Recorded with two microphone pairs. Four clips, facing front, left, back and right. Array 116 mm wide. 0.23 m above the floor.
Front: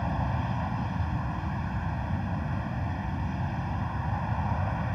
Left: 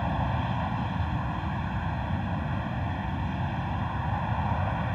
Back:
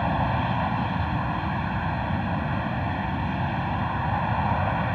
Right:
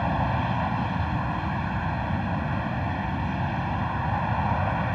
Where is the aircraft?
150° right.